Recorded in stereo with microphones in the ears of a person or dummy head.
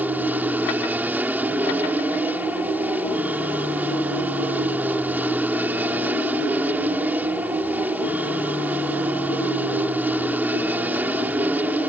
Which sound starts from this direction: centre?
An aircraft, at 0.0 s.